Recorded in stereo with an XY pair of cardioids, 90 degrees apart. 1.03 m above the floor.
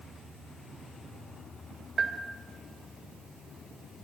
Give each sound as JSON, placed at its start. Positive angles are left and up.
{"t": 2.0, "sound": "a bell", "azimuth_deg": -50, "distance_m": 2.5}